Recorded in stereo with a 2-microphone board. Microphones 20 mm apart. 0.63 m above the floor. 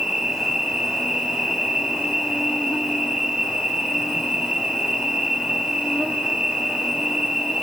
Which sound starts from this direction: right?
An insect, at 0.0 s.